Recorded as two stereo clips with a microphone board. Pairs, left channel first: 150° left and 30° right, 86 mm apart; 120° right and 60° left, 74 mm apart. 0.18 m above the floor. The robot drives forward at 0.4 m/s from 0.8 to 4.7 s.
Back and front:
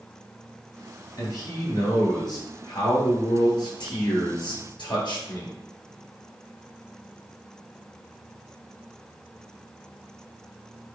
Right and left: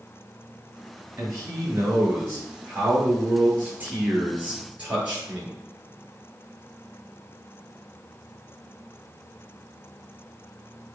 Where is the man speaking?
105° left, 3.5 m; by 5.6 s 130° left, 4 m.